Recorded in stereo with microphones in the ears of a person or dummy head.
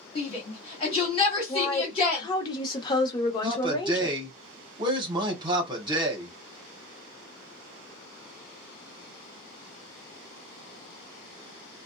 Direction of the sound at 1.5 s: 25° left (ahead or behind).